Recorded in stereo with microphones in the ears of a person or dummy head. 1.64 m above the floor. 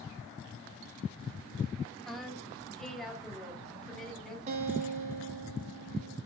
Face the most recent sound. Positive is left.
turn(degrees=-45)  # may be behind; listen again after turning